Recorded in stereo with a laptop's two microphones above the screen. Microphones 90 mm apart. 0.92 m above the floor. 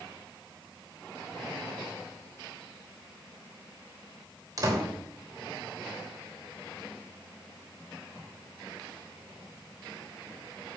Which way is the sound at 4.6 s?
40° right (ahead or behind).